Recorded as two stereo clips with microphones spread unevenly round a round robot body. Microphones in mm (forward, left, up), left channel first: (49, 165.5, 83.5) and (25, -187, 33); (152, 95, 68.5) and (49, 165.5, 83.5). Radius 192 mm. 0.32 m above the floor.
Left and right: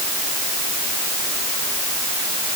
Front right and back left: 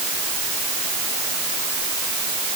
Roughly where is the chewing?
I don't hear chewing.